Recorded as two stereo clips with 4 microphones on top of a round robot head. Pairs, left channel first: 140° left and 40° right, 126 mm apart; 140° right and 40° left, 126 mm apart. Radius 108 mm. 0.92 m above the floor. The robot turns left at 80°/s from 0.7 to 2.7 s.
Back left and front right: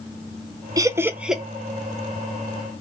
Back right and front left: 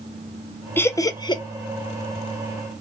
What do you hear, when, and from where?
0.8 s laughter: 75° right, 0.6 m; by 1.4 s 130° right, 0.6 m